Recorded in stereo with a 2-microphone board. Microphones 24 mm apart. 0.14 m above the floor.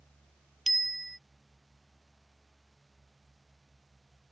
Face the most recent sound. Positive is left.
turn(degrees=5)  # may be behind; listen again after turning